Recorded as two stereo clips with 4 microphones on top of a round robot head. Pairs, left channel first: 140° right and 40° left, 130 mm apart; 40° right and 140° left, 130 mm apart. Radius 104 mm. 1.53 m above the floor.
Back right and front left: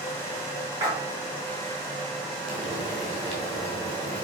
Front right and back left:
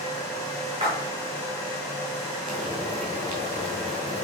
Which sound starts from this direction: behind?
Frying, at 2.5 s.